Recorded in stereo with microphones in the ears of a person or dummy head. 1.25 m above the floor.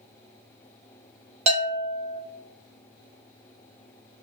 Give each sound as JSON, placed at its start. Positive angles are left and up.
{"t": 1.5, "sound": "a bell", "side_deg": -30, "distance_m": 0.6}